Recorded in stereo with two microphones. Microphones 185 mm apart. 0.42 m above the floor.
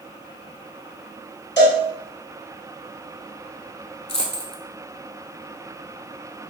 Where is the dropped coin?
35° left (ahead or behind), 0.7 m.